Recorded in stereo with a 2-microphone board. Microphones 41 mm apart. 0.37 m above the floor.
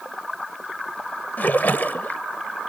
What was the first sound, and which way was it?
A splash, 50° left (ahead or behind).